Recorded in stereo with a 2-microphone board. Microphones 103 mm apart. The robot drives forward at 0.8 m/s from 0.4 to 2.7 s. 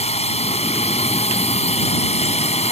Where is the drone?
75° left (ahead or behind); by 2.7 s 80° left.